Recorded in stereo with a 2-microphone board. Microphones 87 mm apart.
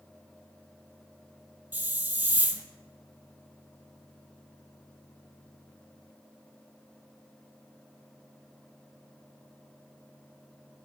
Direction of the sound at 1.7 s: 25° right (ahead or behind).